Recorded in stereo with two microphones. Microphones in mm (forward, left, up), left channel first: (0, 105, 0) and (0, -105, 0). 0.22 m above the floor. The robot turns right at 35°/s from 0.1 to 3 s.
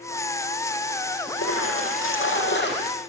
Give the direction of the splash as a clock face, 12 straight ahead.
9 o'clock.